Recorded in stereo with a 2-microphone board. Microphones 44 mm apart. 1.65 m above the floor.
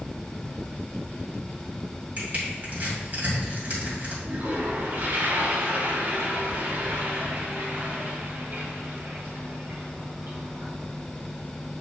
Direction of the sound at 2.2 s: 40° right (ahead or behind).